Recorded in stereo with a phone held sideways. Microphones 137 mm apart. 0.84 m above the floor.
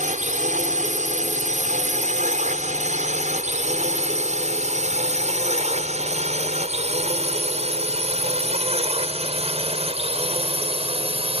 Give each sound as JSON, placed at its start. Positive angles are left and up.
{"t": 0.0, "sound": "a drone", "side_deg": -60}